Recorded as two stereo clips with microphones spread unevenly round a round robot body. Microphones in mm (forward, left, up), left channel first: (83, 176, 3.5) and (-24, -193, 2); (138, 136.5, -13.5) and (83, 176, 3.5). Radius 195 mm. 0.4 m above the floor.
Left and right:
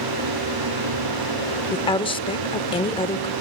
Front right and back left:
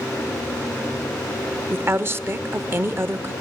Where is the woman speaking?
125° left, 0.8 m.